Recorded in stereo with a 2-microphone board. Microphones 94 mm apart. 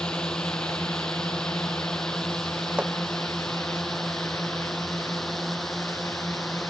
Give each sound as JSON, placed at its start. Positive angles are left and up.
{"t": 0.0, "sound": "a drone", "side_deg": 10}
{"t": 2.8, "sound": "hammering", "side_deg": -10}